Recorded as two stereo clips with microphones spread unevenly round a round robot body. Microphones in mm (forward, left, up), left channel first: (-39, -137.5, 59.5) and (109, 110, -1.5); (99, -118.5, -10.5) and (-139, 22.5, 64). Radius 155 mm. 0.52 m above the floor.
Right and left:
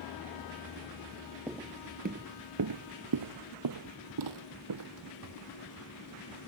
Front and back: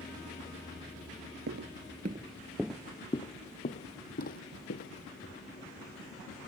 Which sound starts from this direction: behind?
Footsteps, at 1.5 s.